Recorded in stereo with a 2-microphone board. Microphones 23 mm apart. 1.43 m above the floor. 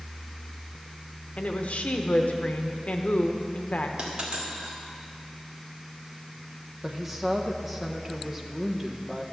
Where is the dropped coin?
45° right (ahead or behind), 2 m.